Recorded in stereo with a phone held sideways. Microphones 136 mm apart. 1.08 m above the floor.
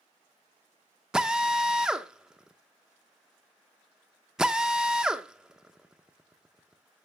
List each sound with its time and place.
1.1 s a drill: 5° right (ahead or behind), 0.8 m